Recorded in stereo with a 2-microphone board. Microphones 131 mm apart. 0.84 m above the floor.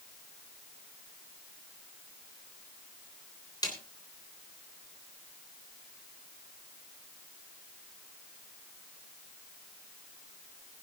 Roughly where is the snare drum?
Left.